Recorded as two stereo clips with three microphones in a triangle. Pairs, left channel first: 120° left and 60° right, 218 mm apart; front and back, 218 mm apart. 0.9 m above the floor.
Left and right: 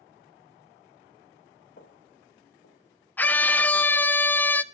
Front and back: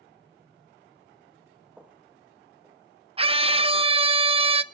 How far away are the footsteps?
About 1.9 m.